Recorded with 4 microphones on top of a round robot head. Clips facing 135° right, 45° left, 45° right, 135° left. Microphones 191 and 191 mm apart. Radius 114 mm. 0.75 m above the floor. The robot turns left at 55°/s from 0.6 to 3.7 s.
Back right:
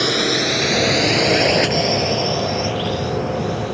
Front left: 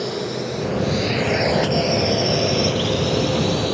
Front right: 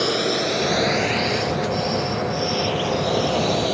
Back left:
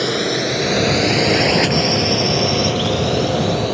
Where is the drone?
145° right; by 3.7 s 35° left.